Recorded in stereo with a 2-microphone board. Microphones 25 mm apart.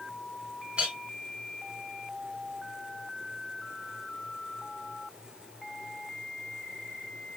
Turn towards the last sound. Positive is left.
turn(degrees=-45)  # may be behind; listen again after turning